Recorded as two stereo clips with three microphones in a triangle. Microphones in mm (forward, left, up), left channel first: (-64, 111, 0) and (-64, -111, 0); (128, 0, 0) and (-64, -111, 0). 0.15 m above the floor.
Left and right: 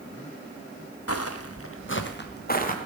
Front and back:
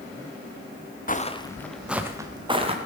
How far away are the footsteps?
About 1.4 m.